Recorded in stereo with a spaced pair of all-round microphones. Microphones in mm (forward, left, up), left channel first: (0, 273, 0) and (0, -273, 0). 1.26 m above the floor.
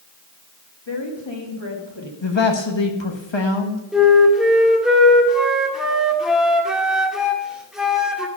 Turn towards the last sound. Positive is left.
turn(degrees=0)  # may be behind; listen again after turning